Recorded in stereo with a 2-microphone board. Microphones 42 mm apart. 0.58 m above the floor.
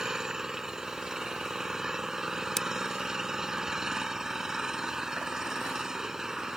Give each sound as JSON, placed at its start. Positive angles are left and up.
{"t": 0.0, "sound": "an engine running", "side_deg": -10}
{"t": 2.6, "sound": "scissors", "side_deg": 10}